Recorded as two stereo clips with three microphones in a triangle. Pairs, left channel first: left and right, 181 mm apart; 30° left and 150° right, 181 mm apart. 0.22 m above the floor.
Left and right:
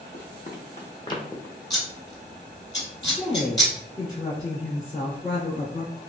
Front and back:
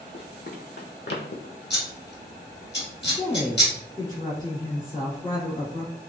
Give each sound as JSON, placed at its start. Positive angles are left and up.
{"t": 0.1, "sound": "running footsteps", "azimuth_deg": 60, "distance_m": 0.9}
{"t": 1.7, "sound": "scissors", "azimuth_deg": 20, "distance_m": 1.4}
{"t": 3.0, "sound": "a woman speaking", "azimuth_deg": 90, "distance_m": 1.4}